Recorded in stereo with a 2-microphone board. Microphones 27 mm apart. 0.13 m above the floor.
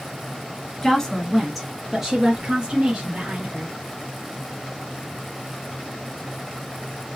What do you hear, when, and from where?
0.8 s a woman speaking: 20° left (ahead or behind), 1.3 m; by 3.7 s 45° right (ahead or behind), 1.9 m